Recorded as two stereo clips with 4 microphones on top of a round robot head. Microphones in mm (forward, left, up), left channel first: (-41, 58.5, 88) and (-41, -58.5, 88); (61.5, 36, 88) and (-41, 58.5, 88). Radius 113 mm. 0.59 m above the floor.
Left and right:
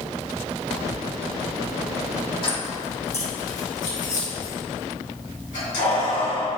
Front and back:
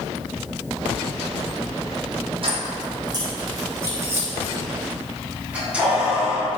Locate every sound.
2.4 s keys jangling: 135° left, 2.0 m; by 6.6 s 85° left, 5 m